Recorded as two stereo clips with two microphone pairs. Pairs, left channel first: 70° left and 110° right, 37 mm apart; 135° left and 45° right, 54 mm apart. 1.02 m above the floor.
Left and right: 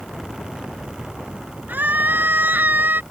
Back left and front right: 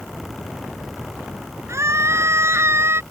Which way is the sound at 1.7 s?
75° right.